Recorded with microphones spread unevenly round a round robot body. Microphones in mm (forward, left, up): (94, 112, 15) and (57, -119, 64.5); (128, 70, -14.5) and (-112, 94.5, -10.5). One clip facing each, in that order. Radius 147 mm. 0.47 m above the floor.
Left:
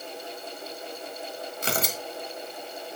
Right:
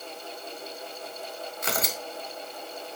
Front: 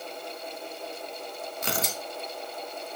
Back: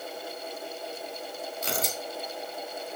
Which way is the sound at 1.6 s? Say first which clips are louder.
Left 2 dB, front 1 dB; 20° left.